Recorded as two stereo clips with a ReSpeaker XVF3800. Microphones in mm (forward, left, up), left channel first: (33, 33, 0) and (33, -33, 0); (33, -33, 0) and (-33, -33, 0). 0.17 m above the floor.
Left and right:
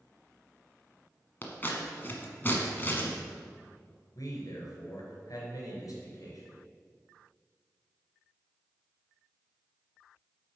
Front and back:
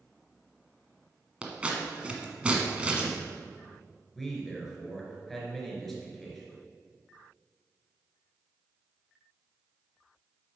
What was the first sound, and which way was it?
Scissors, 120° left.